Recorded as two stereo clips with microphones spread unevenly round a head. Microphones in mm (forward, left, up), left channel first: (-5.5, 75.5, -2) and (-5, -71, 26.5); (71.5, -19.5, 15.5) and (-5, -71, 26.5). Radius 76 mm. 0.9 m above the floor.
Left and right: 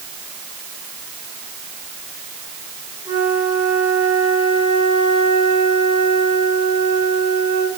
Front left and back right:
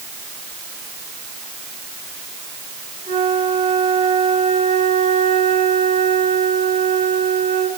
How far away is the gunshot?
I don't hear a gunshot.